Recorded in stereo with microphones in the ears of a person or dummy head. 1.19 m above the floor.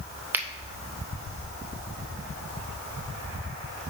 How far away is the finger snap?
About 0.8 m.